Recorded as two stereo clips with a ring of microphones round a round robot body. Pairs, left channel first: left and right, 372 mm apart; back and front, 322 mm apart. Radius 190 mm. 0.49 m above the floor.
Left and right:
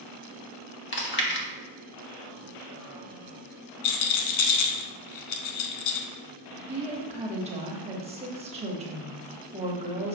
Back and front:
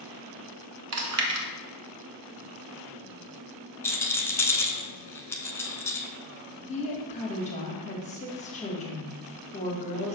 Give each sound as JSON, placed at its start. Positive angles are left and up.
{"t": 0.9, "sound": "chewing", "azimuth_deg": 35, "distance_m": 1.2}
{"t": 3.8, "sound": "a rattle", "azimuth_deg": 100, "distance_m": 0.9}
{"t": 6.7, "sound": "a woman speaking", "azimuth_deg": -140, "distance_m": 1.2}